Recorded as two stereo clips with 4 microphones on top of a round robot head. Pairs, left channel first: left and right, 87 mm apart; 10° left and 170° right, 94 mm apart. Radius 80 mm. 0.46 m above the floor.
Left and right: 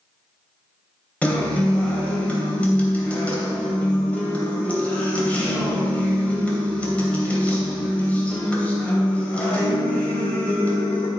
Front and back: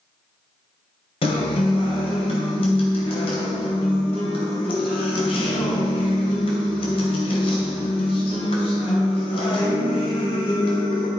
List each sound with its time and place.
1.2 s a guitar: 15° left, 3 m